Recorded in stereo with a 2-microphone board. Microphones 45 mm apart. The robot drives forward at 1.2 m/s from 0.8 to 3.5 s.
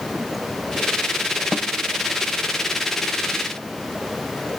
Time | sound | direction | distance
1.5 | a snare drum | 20° right (ahead or behind) | 0.6 m